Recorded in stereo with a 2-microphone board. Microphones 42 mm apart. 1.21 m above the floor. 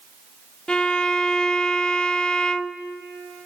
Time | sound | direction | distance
0.7 | a violin | 25° left (ahead or behind) | 0.5 m